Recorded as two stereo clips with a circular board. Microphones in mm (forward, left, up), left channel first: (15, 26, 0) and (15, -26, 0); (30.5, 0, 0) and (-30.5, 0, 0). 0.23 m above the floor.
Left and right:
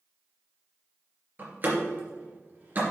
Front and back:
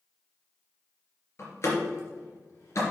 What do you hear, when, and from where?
1.4 s a door slam: 40° right, 3 m